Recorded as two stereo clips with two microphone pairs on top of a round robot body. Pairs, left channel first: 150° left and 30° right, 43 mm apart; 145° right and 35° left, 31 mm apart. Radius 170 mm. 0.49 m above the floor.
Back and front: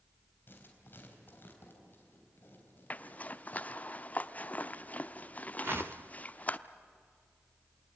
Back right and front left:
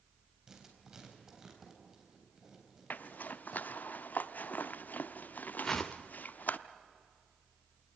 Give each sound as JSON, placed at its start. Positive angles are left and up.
{"t": 0.5, "sound": "writing", "azimuth_deg": 110, "distance_m": 4.0}
{"t": 2.9, "sound": "a zipper", "azimuth_deg": -160, "distance_m": 0.9}
{"t": 5.6, "sound": "a whoosh", "azimuth_deg": -65, "distance_m": 0.5}